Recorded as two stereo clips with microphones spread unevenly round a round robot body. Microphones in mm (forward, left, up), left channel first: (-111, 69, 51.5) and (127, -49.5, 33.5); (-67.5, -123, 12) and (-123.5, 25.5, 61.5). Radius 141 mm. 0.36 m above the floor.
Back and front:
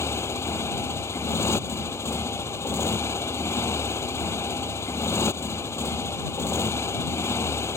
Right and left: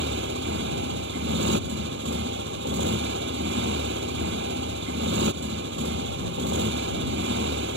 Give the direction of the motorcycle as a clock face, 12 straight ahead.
10 o'clock.